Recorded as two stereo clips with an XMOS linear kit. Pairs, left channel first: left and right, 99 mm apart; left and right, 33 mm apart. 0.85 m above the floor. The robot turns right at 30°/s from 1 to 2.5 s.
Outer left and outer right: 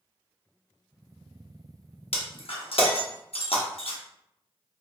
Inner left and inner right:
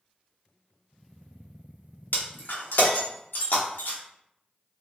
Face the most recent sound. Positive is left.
turn(degrees=70)  # may be behind; listen again after turning